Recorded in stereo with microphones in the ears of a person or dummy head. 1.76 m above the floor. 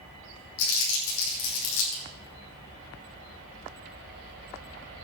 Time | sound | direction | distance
0.6 | crumpling | 75° left (ahead or behind) | 5.5 m